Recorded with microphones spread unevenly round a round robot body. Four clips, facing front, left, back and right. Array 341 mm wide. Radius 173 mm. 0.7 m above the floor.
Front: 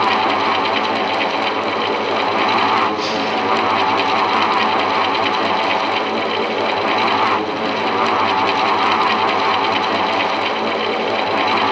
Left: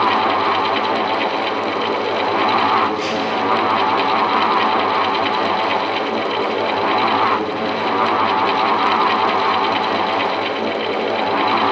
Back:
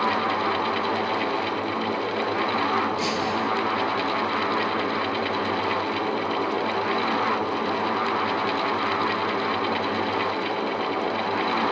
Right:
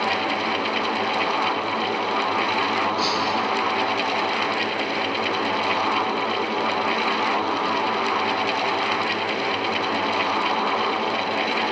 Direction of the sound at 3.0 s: 160° right.